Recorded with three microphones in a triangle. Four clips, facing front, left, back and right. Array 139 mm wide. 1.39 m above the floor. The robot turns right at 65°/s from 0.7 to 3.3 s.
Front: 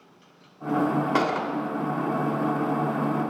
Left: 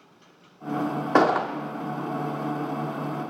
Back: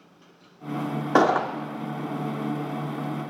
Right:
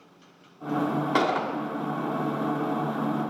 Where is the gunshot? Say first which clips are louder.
Left 6 dB, back 5 dB; 130° left, 1.0 m; by 1.5 s 155° left, 1.0 m.